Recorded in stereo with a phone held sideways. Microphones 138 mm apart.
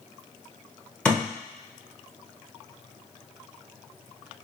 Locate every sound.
1.1 s a thud: 5° left (ahead or behind), 1.3 m